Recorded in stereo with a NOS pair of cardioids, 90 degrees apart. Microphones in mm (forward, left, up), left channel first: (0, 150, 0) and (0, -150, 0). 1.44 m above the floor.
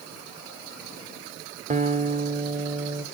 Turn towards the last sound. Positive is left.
turn(degrees=-25)